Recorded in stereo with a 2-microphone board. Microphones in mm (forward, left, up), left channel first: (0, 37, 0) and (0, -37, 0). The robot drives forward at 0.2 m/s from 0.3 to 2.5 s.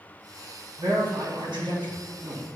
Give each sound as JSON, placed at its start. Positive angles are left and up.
{"t": 0.8, "sound": "a man speaking", "side_deg": -80, "distance_m": 1.2}